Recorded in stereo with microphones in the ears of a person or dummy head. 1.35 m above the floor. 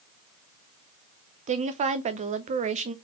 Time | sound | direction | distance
1.5 | a woman speaking | 35° right (ahead or behind) | 0.7 m